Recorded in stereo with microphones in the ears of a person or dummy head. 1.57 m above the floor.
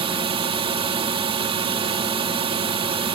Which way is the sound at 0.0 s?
25° right (ahead or behind).